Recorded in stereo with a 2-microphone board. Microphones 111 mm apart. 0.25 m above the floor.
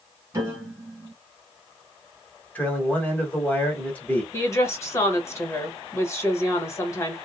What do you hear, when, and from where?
0.3 s a piano: 25° right (ahead or behind), 1.9 m
2.5 s a man speaking: 15° left (ahead or behind), 1.2 m
4.3 s a woman speaking: 25° left (ahead or behind), 1.2 m